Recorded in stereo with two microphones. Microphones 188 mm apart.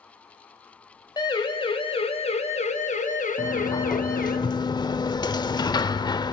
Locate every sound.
1.2 s a siren: 20° left (ahead or behind), 3 m; by 4.4 s 55° left (ahead or behind), 3 m
3.4 s a sliding door: 25° left (ahead or behind), 0.9 m